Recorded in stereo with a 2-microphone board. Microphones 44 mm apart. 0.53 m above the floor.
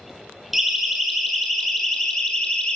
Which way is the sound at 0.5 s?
5° right (ahead or behind).